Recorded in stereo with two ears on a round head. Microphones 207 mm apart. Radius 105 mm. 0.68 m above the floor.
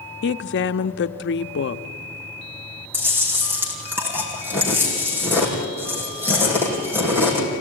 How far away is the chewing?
About 5 m.